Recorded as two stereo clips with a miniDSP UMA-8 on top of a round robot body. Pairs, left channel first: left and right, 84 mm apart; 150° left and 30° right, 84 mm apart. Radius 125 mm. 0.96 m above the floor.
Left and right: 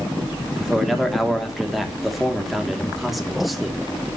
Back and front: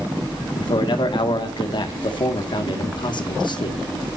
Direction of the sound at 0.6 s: Straight behind.